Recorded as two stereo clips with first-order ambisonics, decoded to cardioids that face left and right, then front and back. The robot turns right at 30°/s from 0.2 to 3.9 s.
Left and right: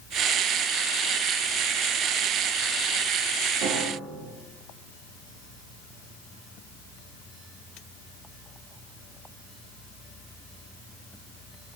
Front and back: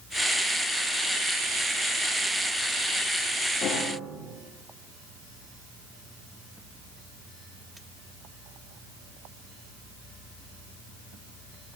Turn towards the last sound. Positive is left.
turn(degrees=-55)